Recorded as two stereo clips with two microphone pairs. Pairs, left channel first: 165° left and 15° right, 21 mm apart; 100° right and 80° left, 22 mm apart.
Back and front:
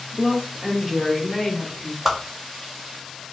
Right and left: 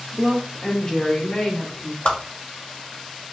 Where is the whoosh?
85° right, 0.8 m.